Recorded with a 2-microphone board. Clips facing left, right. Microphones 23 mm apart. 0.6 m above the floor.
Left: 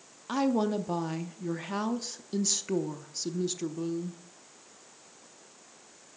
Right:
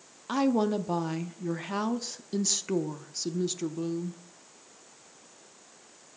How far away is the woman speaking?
About 0.5 m.